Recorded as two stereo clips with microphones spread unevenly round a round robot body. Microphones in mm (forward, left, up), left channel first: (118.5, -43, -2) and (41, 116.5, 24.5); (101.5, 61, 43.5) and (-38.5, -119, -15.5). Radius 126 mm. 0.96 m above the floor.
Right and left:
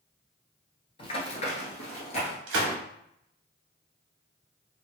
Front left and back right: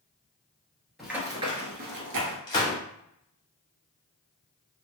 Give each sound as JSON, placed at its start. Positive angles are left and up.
{"t": 1.0, "sound": "running footsteps", "azimuth_deg": -15, "distance_m": 1.1}
{"t": 2.5, "sound": "a gunshot", "azimuth_deg": 125, "distance_m": 0.9}